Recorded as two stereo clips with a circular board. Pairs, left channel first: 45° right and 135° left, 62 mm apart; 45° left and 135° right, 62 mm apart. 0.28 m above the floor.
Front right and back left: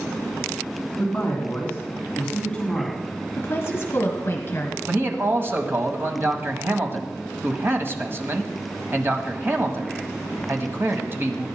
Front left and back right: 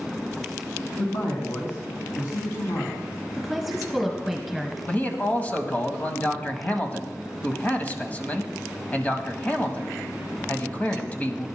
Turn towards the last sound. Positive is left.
turn(degrees=100)